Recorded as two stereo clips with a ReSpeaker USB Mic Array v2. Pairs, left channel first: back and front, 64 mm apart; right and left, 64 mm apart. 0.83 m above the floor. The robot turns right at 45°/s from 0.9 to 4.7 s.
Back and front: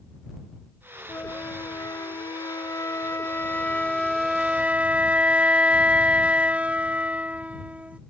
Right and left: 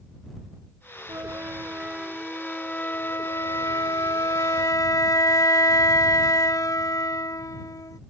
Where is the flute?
130° left; by 8.0 s 70° right.